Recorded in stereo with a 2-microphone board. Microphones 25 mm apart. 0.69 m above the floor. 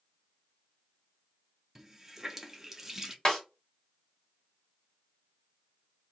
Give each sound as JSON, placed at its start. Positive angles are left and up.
{"t": 1.8, "sound": "a running tap", "side_deg": -20, "distance_m": 0.5}
{"t": 3.2, "sound": "a snare drum", "side_deg": 20, "distance_m": 1.7}